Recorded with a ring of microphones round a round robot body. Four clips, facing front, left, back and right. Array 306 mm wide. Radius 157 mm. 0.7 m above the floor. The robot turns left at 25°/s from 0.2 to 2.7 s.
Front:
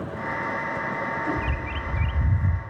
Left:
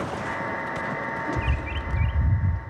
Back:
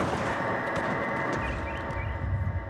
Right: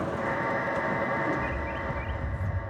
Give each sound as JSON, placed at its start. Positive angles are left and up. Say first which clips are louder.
{"t": 1.4, "sound": "a bird", "louder": "even, front 2 dB", "azimuth_deg": 65, "distance_m": 0.7}